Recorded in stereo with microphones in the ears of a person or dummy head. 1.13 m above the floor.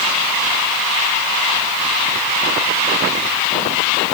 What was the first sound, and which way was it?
Only background noise.